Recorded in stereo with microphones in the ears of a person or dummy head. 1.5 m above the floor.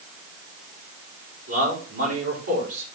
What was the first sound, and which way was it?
A man speaking, 85° right.